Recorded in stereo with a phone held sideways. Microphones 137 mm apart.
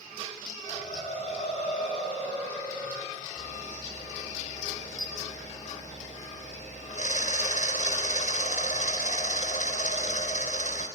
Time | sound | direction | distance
0.7 | laughter | 50° left (ahead or behind) | 8 m
3.4 | a camera shutter | 65° left (ahead or behind) | 4.5 m